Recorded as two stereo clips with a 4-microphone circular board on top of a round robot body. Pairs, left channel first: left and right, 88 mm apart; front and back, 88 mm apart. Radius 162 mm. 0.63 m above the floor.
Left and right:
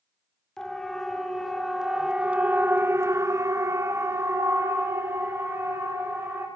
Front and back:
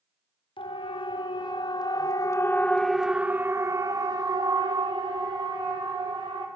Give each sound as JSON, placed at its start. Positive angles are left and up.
{"t": 0.6, "sound": "a siren", "azimuth_deg": 5, "distance_m": 3.5}